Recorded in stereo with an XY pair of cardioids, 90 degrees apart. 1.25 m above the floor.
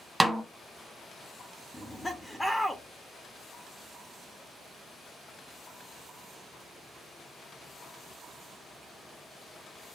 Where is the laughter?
10° left, 1.0 m.